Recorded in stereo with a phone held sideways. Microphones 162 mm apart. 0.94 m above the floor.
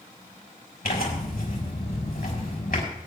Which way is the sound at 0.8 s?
80° left.